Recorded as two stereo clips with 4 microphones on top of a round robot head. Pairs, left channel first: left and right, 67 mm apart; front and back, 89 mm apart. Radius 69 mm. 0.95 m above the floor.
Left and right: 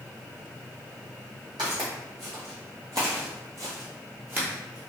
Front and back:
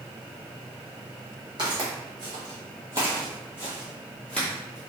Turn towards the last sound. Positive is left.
turn(degrees=-30)